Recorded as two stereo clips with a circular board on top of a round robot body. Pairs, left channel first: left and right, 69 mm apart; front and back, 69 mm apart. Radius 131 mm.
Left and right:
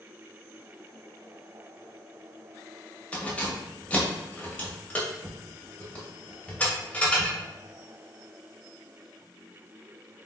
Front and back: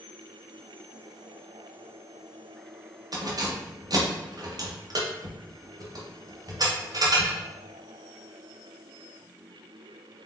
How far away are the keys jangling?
About 1.3 m.